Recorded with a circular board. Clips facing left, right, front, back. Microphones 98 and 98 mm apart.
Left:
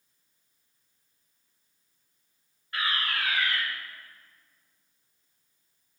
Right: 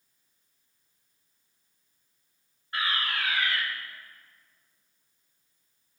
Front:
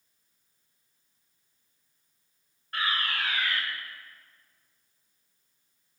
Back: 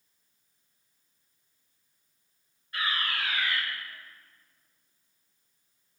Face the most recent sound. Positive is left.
turn(degrees=-30)